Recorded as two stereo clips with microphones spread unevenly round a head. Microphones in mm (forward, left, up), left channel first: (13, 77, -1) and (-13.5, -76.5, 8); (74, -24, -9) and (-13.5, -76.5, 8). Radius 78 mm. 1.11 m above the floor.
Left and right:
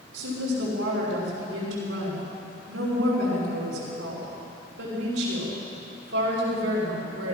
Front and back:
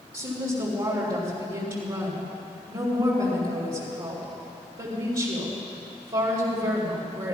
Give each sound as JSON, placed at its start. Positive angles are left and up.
{"t": 0.1, "sound": "a woman speaking", "azimuth_deg": -105, "distance_m": 5.0}